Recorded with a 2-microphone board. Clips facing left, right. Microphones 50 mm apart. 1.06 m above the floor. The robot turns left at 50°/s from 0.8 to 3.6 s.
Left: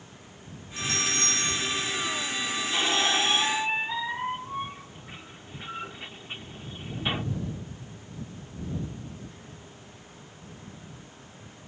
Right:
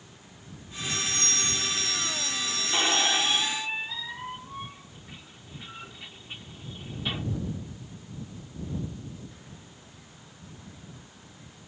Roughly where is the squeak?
Behind.